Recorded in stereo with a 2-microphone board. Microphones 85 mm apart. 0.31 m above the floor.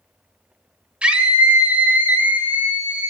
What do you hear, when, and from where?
1.0 s a scream: 10° right (ahead or behind), 1.5 m; by 3.1 s 25° right (ahead or behind), 1.8 m